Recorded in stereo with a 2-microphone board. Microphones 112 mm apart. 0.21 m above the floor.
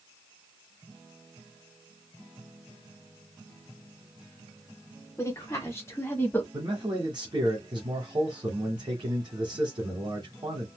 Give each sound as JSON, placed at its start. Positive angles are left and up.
{"t": 5.2, "sound": "a woman speaking", "side_deg": 30, "distance_m": 1.3}
{"t": 6.5, "sound": "a man speaking", "side_deg": -45, "distance_m": 1.6}